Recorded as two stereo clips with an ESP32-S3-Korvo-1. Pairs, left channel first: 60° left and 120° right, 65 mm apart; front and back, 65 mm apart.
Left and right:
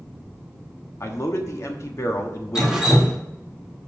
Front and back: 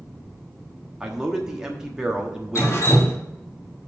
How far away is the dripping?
About 1.7 m.